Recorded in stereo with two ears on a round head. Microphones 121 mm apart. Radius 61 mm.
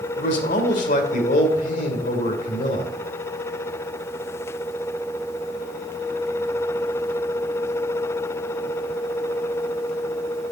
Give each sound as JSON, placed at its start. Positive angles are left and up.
{"t": 0.2, "sound": "a man speaking", "side_deg": 60, "distance_m": 2.0}